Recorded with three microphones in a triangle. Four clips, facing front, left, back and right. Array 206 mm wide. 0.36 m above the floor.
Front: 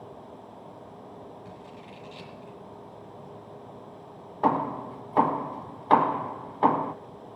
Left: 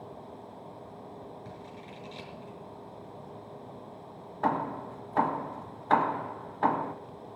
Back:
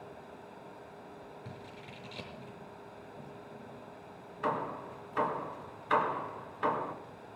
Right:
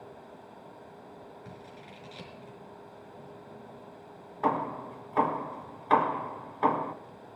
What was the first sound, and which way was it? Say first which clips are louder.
Scissors: left 2 dB, front 4 dB; straight behind.